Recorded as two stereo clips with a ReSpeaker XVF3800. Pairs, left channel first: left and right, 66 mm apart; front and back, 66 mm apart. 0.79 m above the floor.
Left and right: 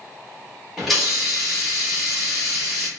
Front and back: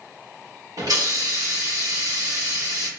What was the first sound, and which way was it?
A hiss, straight behind.